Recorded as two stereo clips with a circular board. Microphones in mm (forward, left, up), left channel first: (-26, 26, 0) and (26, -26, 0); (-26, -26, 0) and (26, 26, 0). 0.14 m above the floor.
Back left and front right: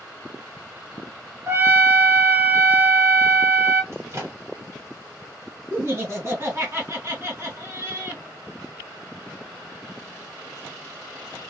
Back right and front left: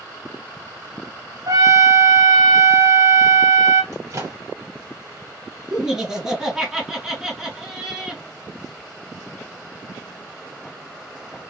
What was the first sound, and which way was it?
A trumpet, 10° left.